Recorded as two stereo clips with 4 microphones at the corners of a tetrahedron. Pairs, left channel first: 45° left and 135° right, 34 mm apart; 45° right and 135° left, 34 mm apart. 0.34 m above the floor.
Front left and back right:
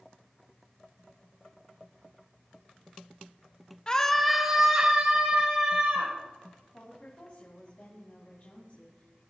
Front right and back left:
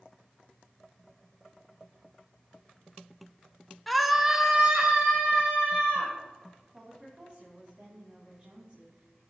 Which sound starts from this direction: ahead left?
A scream, at 3.9 s.